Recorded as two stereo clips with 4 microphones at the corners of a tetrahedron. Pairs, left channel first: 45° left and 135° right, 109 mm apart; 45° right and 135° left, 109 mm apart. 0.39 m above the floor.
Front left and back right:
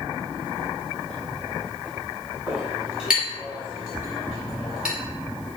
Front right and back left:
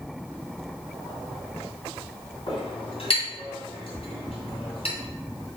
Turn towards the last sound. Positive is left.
turn(degrees=-55)